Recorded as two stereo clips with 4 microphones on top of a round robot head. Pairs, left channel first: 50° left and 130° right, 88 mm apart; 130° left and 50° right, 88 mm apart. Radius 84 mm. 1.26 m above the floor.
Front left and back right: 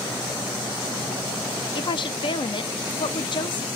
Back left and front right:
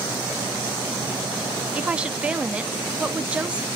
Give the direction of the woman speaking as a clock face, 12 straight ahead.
11 o'clock.